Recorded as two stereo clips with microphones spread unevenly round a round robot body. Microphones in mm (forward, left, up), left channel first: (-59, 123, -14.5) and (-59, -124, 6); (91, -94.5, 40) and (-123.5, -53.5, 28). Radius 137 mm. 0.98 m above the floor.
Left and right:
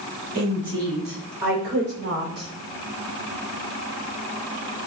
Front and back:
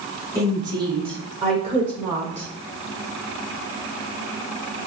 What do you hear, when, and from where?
0.3 s a woman speaking: 115° right, 2.5 m; by 2.5 s 140° right, 3 m